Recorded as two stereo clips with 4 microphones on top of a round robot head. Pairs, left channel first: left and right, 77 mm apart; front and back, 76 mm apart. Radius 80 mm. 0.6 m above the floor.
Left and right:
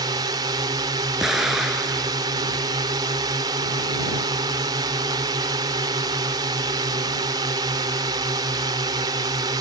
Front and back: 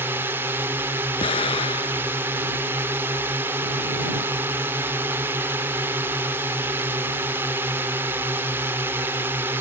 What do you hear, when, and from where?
0.0 s a drone: 120° right
1.2 s an explosion: 5° right